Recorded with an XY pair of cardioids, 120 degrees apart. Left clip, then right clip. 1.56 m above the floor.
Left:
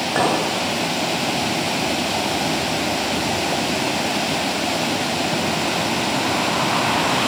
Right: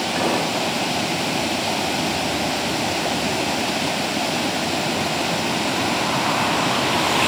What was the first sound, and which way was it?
A clink, 55° left.